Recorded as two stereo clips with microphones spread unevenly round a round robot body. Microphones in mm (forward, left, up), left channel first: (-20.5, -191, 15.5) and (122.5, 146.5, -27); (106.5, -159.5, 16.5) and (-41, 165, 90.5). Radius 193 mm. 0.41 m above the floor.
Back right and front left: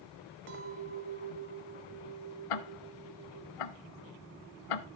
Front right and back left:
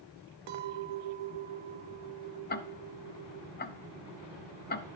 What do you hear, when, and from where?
0.5 s a clink: 120° left, 1.2 m
2.5 s ticking: 130° right, 0.6 m